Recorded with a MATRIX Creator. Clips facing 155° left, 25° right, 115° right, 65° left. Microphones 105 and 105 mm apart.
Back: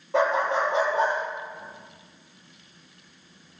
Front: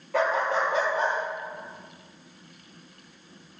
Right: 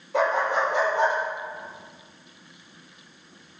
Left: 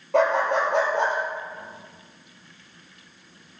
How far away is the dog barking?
About 4 m.